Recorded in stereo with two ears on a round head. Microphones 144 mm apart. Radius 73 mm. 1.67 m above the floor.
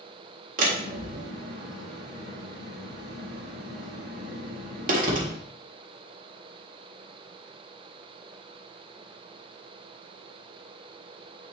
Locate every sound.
0.6 s a door slam: 55° right (ahead or behind), 1.8 m